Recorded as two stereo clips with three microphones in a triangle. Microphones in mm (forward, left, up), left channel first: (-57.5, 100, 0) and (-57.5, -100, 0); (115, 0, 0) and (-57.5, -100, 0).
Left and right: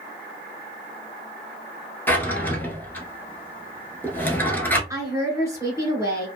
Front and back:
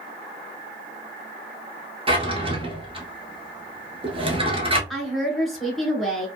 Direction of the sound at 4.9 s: 60° right.